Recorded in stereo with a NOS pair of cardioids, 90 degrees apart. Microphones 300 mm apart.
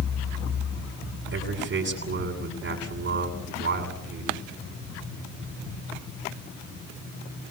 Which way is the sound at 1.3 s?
45° right.